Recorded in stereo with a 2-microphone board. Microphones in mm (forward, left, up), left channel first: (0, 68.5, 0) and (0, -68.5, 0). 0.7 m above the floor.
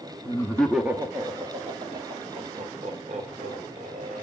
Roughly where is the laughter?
Left.